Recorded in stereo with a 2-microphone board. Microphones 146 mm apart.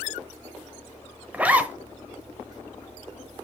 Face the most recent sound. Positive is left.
turn(degrees=-10)  # may be behind; listen again after turning